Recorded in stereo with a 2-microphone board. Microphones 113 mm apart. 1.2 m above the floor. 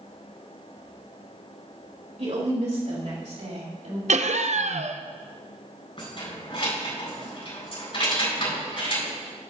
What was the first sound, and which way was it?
A woman speaking, 75° right (ahead or behind).